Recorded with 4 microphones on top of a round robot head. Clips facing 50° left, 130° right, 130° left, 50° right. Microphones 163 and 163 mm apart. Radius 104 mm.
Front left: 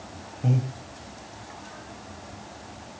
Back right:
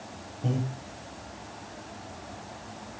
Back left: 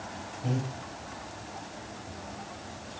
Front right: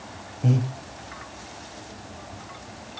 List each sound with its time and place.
0.4 s breathing: 25° right, 1.4 m